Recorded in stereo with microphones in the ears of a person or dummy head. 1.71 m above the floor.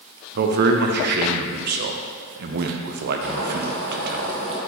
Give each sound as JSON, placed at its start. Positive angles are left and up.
{"t": 0.3, "sound": "a man speaking", "side_deg": -55, "distance_m": 0.9}
{"t": 3.2, "sound": "boiling", "side_deg": -65, "distance_m": 1.5}